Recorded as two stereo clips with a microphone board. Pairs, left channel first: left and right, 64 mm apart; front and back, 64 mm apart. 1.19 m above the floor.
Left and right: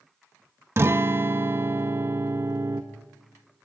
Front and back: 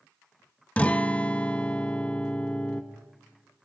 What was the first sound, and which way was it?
A guitar, 60° right.